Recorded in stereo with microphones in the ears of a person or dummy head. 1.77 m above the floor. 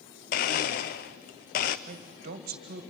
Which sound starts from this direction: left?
A blender, at 0.3 s.